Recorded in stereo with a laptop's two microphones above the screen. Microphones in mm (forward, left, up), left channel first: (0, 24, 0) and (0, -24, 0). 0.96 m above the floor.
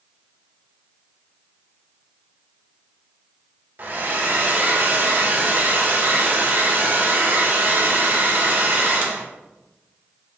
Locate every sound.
3.8 s a hair dryer: 45° right (ahead or behind), 0.5 m